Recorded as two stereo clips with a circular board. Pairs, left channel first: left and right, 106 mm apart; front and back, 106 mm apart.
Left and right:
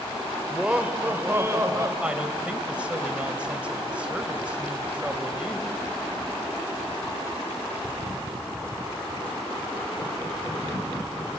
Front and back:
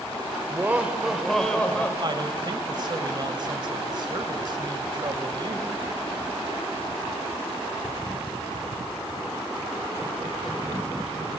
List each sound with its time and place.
0.5 s laughter: 160° right, 1.1 m; by 1.9 s 60° right, 1.3 m
2.0 s a woman speaking: 165° right, 1.7 m